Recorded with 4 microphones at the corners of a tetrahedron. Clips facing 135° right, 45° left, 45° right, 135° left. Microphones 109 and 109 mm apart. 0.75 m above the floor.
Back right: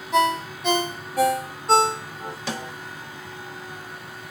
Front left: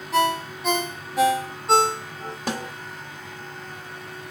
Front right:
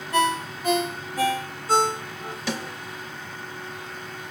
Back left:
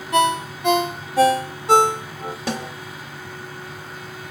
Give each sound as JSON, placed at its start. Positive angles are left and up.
{"t": 0.1, "sound": "a ringtone", "azimuth_deg": 135, "distance_m": 1.1}
{"t": 2.5, "sound": "a snare drum", "azimuth_deg": 90, "distance_m": 1.5}